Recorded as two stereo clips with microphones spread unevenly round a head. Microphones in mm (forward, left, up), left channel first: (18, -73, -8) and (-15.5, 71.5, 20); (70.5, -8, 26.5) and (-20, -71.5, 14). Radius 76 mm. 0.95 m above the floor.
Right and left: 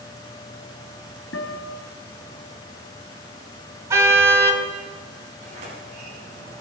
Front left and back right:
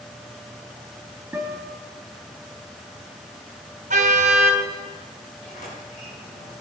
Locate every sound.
1.3 s a guitar: 70° right, 3 m
3.9 s a car horn: 175° left, 3 m
5.4 s a sliding door: 60° left, 8.5 m